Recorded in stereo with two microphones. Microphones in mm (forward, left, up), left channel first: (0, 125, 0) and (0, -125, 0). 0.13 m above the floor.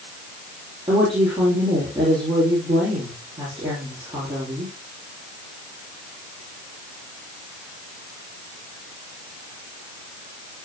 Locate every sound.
0.9 s a woman speaking: 20° right (ahead or behind), 4.5 m